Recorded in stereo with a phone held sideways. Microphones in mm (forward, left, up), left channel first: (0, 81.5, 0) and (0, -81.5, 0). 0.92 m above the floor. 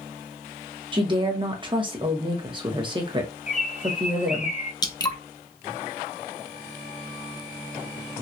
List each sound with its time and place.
0.9 s a woman speaking: 30° right (ahead or behind), 1.1 m
3.5 s a bird: 45° left (ahead or behind), 0.8 m
4.8 s dripping: 25° left (ahead or behind), 0.6 m